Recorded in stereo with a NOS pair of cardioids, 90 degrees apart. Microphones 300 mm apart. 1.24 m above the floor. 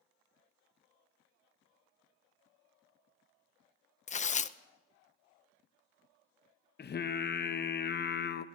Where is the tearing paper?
25° left, 0.5 m.